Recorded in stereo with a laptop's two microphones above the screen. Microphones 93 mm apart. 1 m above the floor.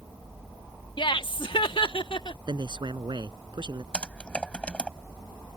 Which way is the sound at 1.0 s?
60° left (ahead or behind).